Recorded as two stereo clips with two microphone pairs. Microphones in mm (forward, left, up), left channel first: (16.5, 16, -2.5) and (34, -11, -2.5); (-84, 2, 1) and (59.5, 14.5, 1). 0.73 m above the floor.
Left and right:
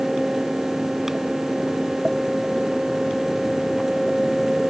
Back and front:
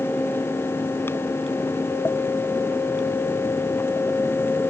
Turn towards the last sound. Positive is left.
No sound to turn to.